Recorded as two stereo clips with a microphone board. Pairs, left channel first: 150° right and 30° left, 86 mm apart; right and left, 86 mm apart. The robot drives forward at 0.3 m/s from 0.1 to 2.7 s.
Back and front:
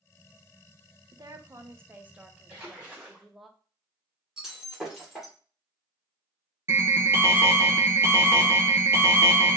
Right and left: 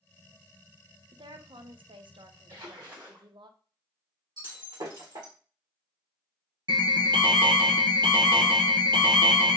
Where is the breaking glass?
110° left, 1.4 m.